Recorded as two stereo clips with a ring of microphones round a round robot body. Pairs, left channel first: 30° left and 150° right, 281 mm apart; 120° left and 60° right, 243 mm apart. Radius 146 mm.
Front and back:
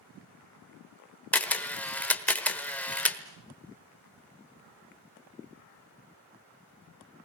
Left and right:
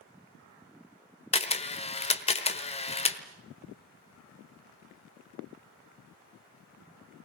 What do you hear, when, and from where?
1.3 s a camera shutter: 110° left, 1.2 m